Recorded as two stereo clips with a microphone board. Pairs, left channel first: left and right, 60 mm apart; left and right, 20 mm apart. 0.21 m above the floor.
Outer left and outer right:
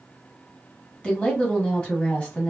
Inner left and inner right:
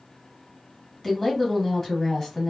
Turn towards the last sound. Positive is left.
turn(degrees=20)  # may be behind; listen again after turning